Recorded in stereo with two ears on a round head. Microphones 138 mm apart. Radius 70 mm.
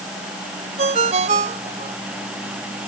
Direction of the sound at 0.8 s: 45° right (ahead or behind).